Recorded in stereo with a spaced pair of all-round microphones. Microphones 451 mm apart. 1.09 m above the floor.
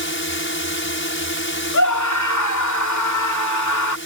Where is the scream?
45° left (ahead or behind).